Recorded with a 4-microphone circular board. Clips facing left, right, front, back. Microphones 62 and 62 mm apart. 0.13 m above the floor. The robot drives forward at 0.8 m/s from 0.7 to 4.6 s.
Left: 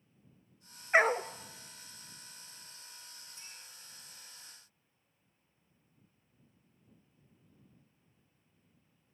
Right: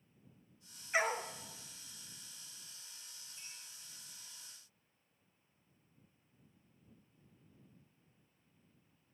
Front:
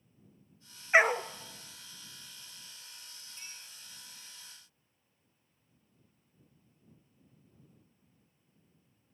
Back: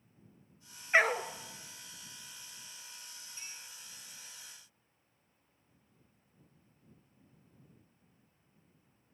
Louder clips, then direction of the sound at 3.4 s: Even, even; 95° left.